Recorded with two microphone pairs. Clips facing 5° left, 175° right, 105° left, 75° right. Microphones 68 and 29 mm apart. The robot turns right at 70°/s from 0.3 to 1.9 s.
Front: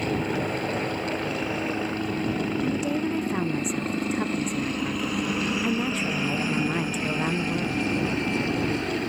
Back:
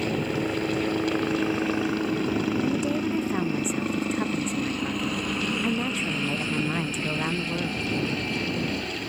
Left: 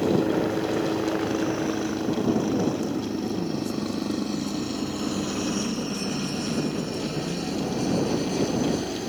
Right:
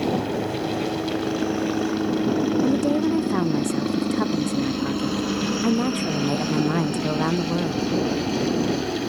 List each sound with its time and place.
0.0 s a helicopter: 110° left; by 9.1 s 25° right
2.6 s a woman speaking: 85° right